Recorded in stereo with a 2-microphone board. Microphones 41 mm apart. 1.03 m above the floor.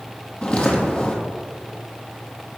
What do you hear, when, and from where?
0.4 s footsteps: 20° left (ahead or behind), 1.4 m